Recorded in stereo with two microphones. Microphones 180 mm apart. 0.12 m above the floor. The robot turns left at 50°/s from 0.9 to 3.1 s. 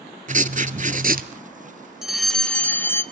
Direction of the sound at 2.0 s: Centre (ahead or behind).